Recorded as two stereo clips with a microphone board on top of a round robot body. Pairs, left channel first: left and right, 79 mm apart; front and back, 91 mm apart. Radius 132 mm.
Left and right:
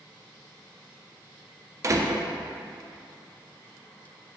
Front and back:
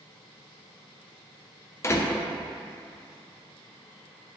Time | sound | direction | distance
1.8 | a door slam | 50° right | 0.9 m